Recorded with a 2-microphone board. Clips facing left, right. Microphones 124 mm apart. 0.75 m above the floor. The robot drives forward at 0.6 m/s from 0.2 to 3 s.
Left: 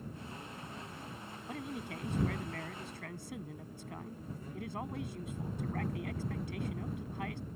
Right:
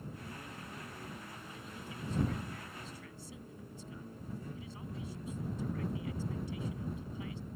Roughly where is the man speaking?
Left.